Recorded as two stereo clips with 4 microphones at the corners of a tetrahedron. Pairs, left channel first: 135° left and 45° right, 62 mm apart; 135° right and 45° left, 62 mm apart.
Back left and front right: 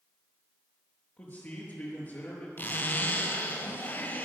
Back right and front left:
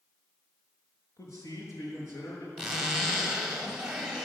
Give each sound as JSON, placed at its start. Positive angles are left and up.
{"t": 1.2, "sound": "a man speaking", "azimuth_deg": -165, "distance_m": 5.0}
{"t": 2.6, "sound": "a zipper", "azimuth_deg": 125, "distance_m": 1.9}